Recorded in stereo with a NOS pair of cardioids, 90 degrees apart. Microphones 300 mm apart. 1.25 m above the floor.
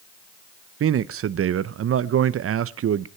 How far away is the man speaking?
About 0.7 m.